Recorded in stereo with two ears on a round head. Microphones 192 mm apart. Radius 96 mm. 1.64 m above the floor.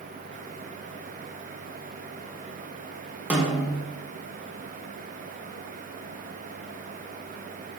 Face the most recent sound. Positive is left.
turn(degrees=-10)  # may be behind; listen again after turning